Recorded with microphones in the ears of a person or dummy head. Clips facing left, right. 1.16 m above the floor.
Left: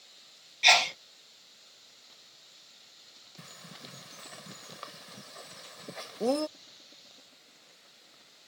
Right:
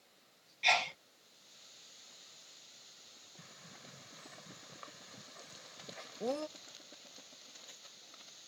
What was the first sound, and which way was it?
A sneeze, 60° left (ahead or behind).